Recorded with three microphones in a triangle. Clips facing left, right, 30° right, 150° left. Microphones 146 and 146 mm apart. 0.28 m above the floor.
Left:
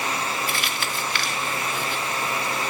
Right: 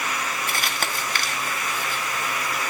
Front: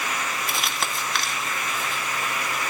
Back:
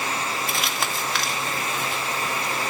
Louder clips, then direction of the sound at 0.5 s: Even, back 1 dB; 120° right.